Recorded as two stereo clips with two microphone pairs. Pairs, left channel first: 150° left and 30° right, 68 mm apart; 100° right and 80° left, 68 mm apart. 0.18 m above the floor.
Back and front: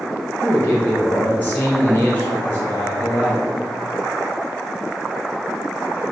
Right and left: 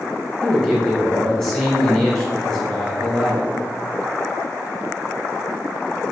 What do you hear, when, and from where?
0.4 s a man speaking: 175° right, 1.2 m